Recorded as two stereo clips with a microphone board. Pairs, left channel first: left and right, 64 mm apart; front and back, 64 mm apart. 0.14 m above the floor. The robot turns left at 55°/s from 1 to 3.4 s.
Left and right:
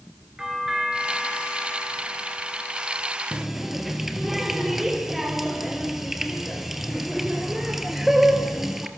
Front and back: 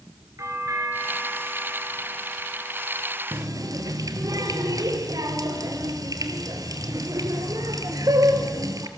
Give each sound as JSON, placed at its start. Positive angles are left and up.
{"t": 0.4, "sound": "a doorbell", "azimuth_deg": -170, "distance_m": 3.5}
{"t": 3.3, "sound": "a running tap", "azimuth_deg": -170, "distance_m": 2.0}